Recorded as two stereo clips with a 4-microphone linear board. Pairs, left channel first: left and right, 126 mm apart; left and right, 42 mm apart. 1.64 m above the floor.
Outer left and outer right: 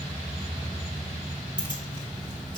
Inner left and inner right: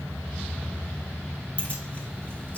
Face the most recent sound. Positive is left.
turn(degrees=35)  # may be behind; listen again after turning